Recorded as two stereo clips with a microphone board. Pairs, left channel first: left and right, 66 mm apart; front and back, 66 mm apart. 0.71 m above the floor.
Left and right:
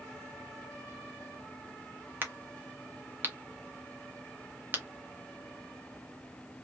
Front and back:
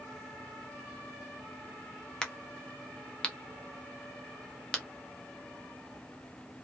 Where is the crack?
65° right, 0.7 m.